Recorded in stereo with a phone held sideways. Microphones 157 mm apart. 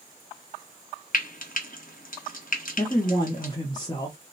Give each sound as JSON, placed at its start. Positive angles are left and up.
{"t": 1.1, "sound": "frying", "side_deg": 65, "distance_m": 0.8}
{"t": 2.8, "sound": "a man speaking", "side_deg": 25, "distance_m": 0.7}